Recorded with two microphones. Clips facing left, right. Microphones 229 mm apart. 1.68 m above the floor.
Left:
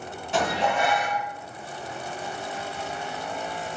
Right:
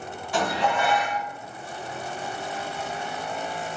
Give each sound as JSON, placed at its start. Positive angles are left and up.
{"t": 0.3, "sound": "dishes clattering", "side_deg": 25, "distance_m": 0.9}